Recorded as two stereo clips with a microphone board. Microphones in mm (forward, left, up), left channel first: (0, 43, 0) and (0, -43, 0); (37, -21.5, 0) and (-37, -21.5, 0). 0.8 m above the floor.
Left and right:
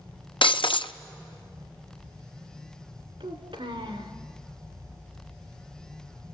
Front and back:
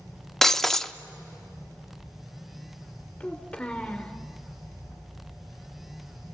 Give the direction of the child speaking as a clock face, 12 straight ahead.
3 o'clock.